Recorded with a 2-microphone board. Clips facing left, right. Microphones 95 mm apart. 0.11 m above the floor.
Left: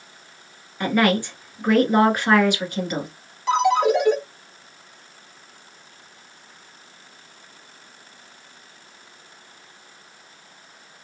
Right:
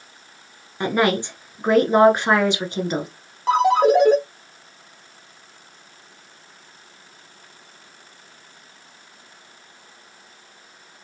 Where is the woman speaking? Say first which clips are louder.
Even; 20° right (ahead or behind), 1.1 m.